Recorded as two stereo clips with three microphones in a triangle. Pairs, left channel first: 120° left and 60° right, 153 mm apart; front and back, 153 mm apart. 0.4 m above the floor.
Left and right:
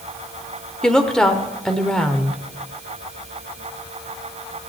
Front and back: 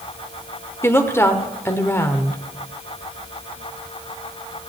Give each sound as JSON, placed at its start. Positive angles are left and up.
{"t": 0.8, "sound": "a woman speaking", "azimuth_deg": 40, "distance_m": 1.1}